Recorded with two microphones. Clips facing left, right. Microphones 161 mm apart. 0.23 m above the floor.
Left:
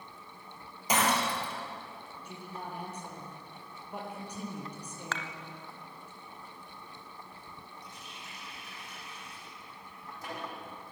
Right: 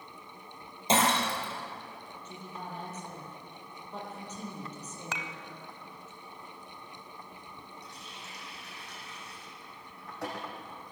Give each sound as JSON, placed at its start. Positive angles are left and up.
{"t": 0.9, "sound": "breaking glass", "side_deg": -25, "distance_m": 4.5}
{"t": 2.2, "sound": "a woman speaking", "side_deg": 10, "distance_m": 7.0}
{"t": 5.1, "sound": "dishes clattering", "side_deg": -15, "distance_m": 0.9}
{"t": 7.8, "sound": "a running tap", "side_deg": -70, "distance_m": 7.5}